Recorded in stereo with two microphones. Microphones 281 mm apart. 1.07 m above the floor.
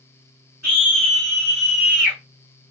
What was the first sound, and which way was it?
A scream, 60° right (ahead or behind).